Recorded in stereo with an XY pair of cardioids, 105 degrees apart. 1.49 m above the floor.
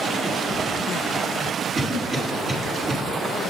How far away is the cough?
About 5 m.